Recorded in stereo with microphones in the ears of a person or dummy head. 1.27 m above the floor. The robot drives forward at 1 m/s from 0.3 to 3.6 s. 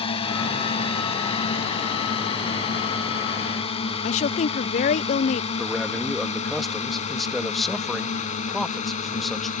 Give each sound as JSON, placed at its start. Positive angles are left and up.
{"t": 0.0, "sound": "a drone", "side_deg": 30}
{"t": 4.0, "sound": "a woman speaking", "side_deg": 40}
{"t": 5.6, "sound": "a man speaking", "side_deg": 0}